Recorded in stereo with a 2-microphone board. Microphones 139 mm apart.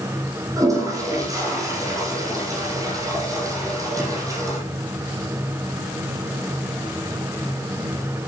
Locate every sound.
0.6 s a toilet flushing: 25° right (ahead or behind), 5 m